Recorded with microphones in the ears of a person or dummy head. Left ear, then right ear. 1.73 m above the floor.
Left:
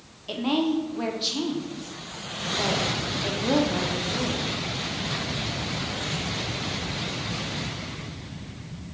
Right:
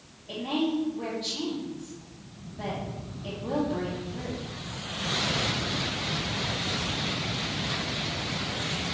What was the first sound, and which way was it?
A woman speaking, 65° left (ahead or behind).